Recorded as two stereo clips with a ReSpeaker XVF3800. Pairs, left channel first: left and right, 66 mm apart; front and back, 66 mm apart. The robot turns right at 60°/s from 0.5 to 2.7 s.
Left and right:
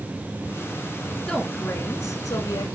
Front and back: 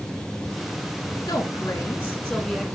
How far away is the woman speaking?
About 2.5 m.